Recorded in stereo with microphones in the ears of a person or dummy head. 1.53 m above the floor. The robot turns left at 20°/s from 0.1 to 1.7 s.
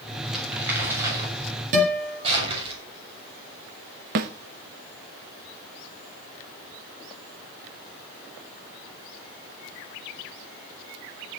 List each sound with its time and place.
0.3 s crumpling: 5° right (ahead or behind), 7 m; by 2.7 s 30° right (ahead or behind), 7 m
1.7 s a guitar: 45° right (ahead or behind), 5.5 m
4.2 s a snare drum: 45° right (ahead or behind), 1.0 m